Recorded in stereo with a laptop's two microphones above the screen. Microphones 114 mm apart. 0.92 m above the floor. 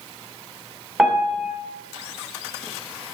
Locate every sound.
1.0 s a piano: 5° right (ahead or behind), 0.6 m